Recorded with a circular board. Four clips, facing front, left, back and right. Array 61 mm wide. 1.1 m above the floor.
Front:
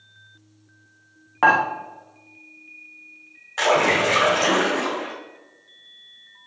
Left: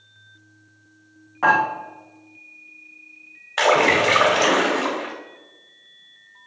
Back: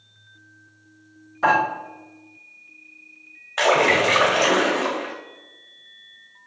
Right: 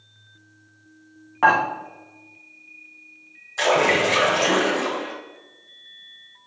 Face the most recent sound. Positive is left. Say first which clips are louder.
# left 2 dB, back 1 dB
turn(degrees=110)